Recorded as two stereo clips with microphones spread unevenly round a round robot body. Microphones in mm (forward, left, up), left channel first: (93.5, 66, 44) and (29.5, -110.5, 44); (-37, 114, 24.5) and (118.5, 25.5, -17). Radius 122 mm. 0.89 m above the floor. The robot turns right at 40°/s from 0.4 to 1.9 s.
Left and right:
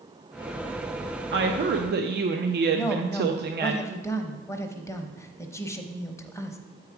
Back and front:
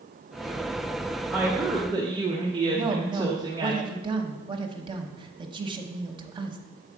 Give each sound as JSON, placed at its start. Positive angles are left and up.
{"t": 1.3, "sound": "a woman speaking", "azimuth_deg": -110, "distance_m": 0.6}
{"t": 2.8, "sound": "a woman speaking", "azimuth_deg": 0, "distance_m": 1.0}